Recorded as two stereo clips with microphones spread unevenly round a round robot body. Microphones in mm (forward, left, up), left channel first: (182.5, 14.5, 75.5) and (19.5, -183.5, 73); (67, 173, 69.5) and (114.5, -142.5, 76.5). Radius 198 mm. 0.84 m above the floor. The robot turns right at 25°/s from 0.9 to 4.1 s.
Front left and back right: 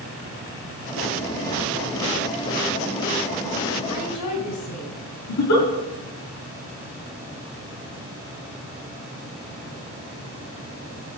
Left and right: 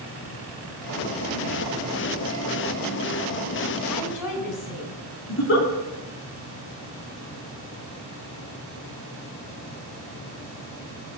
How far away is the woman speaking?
About 4 m.